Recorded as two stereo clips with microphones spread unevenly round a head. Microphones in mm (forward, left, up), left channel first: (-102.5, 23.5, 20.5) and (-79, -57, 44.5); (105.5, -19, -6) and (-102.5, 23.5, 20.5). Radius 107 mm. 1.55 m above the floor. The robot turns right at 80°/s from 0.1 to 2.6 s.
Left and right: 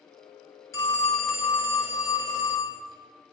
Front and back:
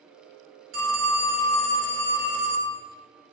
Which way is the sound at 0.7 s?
165° left.